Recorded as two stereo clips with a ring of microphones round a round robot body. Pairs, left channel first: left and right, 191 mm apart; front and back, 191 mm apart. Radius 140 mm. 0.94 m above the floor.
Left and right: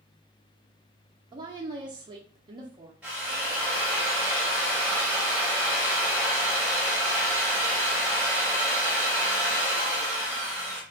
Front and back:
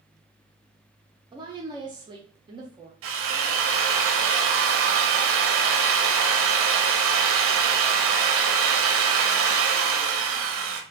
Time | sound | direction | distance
1.3 | a woman speaking | 135° right | 0.5 m
3.0 | a drill | 175° right | 0.5 m